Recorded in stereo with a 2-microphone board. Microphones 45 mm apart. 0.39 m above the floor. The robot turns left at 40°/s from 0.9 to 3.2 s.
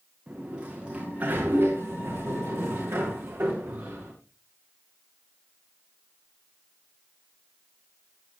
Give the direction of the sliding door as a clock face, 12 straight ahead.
1 o'clock.